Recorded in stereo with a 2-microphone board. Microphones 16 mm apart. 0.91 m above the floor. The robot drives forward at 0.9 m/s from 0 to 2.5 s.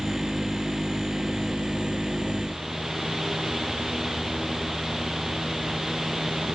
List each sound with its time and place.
Only background noise.